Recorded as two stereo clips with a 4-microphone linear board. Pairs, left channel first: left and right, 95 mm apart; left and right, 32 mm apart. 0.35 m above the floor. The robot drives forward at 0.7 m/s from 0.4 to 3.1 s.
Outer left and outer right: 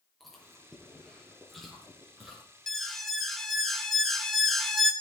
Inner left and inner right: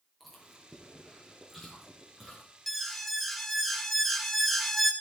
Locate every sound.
0.2 s chewing: centre (ahead or behind), 4.5 m
2.7 s an alarm: 5° left (ahead or behind), 1.2 m; by 4.9 s centre (ahead or behind), 1.4 m